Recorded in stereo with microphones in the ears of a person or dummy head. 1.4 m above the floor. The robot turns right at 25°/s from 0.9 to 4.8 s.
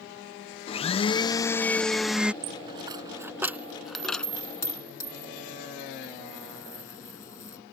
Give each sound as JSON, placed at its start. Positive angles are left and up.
{"t": 0.7, "sound": "a blender", "azimuth_deg": 145}
{"t": 2.4, "sound": "a dropped coin", "side_deg": -35}